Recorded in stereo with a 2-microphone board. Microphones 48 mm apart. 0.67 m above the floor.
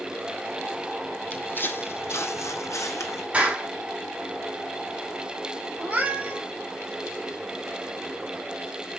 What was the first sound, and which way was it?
Footsteps, 30° left (ahead or behind).